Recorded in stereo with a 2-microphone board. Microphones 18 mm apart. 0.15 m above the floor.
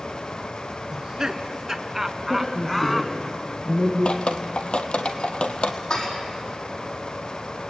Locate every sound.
0.9 s laughter: 35° right (ahead or behind), 1.6 m; by 3.3 s 20° left (ahead or behind), 1.3 m
2.3 s a woman speaking: 40° left (ahead or behind), 4 m
4.0 s dripping: 80° left, 1.4 m
5.9 s dishes clattering: 50° left (ahead or behind), 4 m